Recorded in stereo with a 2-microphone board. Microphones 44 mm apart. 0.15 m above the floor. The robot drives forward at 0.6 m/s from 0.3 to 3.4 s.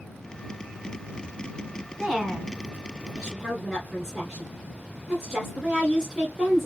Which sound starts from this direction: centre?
A woman speaking, at 2.0 s.